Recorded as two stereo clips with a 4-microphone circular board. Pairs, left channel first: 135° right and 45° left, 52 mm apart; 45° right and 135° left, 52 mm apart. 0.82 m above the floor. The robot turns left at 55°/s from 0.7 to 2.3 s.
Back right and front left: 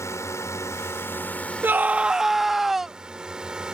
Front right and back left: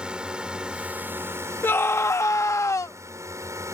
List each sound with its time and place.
0.0 s a drone: 155° right; by 3.7 s 120° left
1.6 s a scream: straight ahead; by 3.0 s 40° right